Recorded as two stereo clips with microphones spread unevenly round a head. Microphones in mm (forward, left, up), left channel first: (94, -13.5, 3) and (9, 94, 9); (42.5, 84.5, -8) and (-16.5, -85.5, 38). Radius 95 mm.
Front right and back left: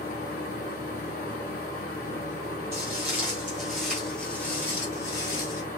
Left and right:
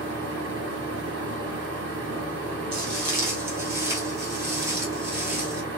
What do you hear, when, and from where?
0.0 s a fan: 85° right, 1.6 m
2.7 s footsteps: 165° right, 2 m; by 5.6 s 75° right, 1.7 m